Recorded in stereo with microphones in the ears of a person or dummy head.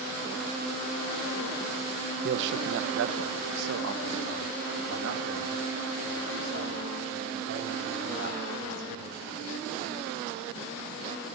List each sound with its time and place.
2.2 s a man speaking: 55° right (ahead or behind), 0.8 m; by 9.7 s 60° right (ahead or behind), 4.5 m